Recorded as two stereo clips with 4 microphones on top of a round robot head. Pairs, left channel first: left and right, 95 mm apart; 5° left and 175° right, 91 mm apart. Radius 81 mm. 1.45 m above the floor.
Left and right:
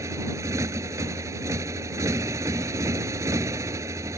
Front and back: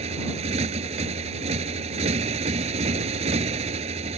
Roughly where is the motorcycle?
Behind.